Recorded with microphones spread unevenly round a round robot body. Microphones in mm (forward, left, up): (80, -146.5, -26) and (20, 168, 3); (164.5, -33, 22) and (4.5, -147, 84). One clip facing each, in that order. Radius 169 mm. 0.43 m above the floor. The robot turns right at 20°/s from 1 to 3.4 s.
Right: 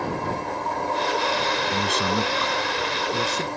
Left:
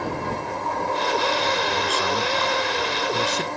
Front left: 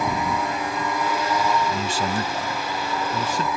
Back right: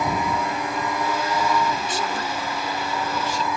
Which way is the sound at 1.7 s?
25° right.